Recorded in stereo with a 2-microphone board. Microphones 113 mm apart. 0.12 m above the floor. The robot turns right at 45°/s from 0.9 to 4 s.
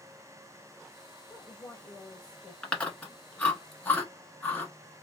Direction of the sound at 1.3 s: 20° left (ahead or behind).